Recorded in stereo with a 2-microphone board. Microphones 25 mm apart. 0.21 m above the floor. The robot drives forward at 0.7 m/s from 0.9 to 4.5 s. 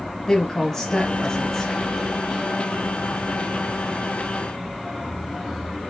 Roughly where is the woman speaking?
Left.